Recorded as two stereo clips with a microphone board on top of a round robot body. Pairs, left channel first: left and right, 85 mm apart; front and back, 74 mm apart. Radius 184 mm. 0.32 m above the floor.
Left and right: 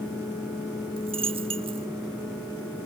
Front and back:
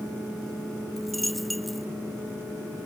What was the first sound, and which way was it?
A dropped coin, 90° right.